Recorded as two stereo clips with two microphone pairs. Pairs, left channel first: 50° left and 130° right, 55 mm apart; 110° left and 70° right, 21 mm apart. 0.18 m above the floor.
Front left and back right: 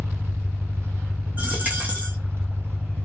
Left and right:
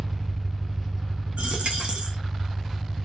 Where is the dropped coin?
70° right, 1.0 m.